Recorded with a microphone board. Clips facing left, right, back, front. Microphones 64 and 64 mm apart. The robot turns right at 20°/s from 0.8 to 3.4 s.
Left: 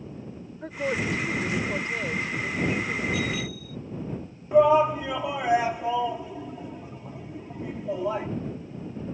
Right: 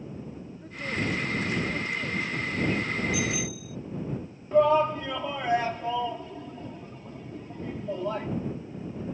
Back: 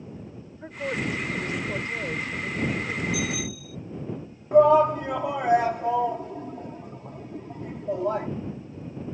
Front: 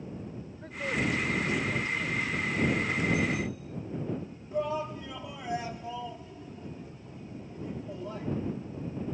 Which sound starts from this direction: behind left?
A woman speaking, at 0.6 s.